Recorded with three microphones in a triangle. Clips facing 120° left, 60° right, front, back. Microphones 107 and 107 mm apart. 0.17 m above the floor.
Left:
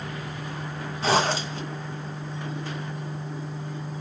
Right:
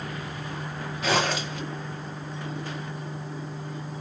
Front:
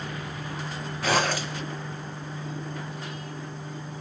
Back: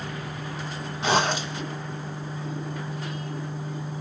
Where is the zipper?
135° left, 1.5 m.